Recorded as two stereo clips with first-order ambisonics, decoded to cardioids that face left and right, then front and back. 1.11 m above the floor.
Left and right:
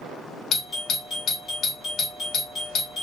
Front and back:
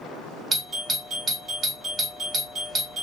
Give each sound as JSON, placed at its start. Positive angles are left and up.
{"t": 0.5, "sound": "a doorbell", "azimuth_deg": 120, "distance_m": 0.7}